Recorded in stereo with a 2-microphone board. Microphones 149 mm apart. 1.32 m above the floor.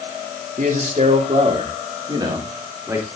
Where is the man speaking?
60° right (ahead or behind), 2.5 m; by 3.0 s 15° right (ahead or behind), 3.5 m.